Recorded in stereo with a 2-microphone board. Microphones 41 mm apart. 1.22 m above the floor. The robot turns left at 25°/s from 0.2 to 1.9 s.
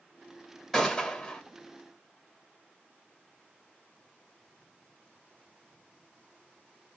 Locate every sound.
0.7 s a gunshot: 5° left (ahead or behind), 1.3 m; by 1.4 s 20° left (ahead or behind), 1.3 m